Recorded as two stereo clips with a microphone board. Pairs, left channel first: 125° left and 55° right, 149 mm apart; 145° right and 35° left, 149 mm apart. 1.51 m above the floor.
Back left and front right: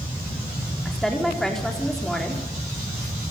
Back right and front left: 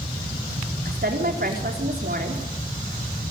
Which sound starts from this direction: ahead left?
A woman speaking, at 0.8 s.